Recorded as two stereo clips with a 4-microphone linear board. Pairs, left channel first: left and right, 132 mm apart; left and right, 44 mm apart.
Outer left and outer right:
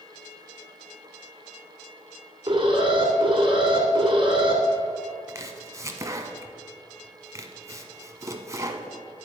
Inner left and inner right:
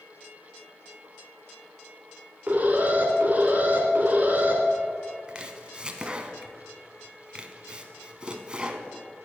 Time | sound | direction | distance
2.5 | an alarm | 40° right (ahead or behind) | 2.5 m
5.3 | chopping | 25° right (ahead or behind) | 0.9 m